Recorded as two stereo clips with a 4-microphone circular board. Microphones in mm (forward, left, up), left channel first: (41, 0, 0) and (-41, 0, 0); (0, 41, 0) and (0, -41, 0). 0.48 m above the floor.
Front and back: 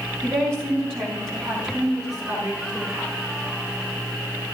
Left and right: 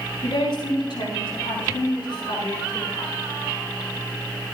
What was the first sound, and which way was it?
A woman speaking, 120° left.